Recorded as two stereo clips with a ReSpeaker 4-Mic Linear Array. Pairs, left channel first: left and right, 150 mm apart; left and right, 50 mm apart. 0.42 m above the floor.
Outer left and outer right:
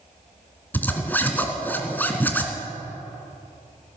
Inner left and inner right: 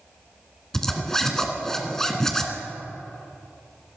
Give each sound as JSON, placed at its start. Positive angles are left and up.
{"t": 0.7, "sound": "a zipper", "side_deg": 15, "distance_m": 1.7}